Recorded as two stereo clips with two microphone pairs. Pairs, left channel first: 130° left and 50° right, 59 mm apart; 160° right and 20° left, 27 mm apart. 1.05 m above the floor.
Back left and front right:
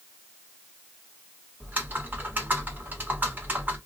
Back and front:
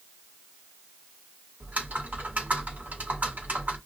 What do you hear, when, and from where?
1.6 s typing on a keyboard: 10° left, 1.2 m